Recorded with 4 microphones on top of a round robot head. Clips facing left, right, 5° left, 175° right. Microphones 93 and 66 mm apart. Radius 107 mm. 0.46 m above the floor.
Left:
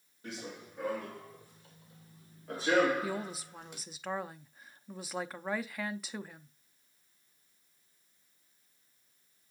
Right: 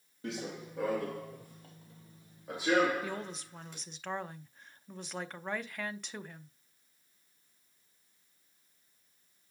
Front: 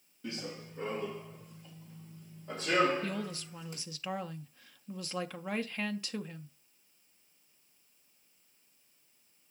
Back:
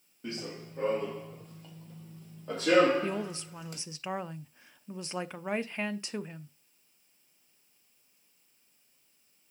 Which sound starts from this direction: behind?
A woman speaking, at 3.0 s.